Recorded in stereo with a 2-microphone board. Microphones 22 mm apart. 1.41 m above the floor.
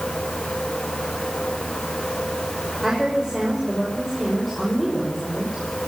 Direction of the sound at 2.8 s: 10° right (ahead or behind).